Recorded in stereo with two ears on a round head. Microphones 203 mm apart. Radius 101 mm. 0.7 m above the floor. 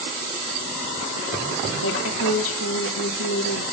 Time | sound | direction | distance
1.8 | a woman speaking | 65° left (ahead or behind) | 1.6 m